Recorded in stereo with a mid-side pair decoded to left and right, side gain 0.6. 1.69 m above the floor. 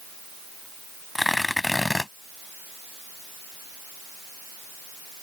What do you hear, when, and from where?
1.1 s tearing paper: 10° left